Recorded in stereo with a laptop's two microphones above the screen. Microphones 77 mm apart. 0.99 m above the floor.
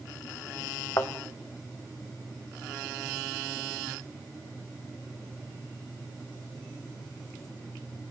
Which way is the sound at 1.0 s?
50° left (ahead or behind).